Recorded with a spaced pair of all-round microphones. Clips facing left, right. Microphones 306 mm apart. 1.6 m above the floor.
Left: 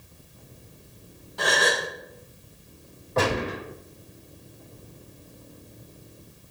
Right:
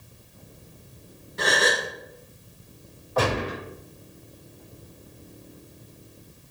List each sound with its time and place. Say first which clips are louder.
1.4 s a gasp: right 1 dB; 25° right (ahead or behind), 1.3 m
3.2 s a gunshot: even; 30° left (ahead or behind), 3.5 m